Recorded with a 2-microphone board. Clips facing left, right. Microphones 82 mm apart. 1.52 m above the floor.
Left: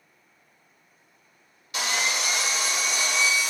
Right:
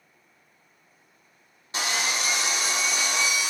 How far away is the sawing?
About 1.0 m.